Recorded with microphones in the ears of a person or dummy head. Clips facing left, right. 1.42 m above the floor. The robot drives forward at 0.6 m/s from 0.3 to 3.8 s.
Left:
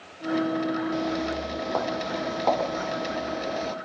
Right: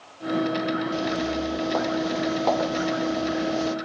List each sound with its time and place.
0.9 s footsteps: centre (ahead or behind); by 3.8 s 5° right (ahead or behind)